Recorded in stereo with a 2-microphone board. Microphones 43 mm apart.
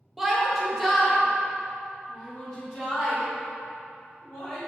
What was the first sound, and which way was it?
A shout, 5° right (ahead or behind).